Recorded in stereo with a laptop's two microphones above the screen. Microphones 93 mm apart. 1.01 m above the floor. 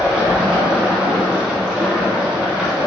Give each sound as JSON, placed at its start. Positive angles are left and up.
{"t": 0.0, "sound": "running water", "side_deg": -10, "distance_m": 2.5}